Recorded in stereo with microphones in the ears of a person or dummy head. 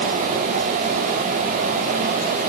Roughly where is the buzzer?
I don't hear a buzzer.